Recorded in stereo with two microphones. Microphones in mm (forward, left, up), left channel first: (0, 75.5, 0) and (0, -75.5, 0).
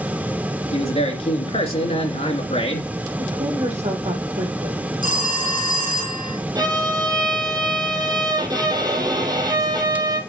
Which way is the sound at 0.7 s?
45° left (ahead or behind).